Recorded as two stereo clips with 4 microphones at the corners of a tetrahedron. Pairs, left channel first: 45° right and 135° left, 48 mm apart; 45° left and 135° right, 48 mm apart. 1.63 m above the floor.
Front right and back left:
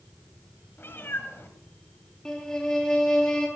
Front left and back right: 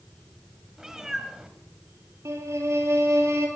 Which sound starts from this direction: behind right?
A violin, at 2.2 s.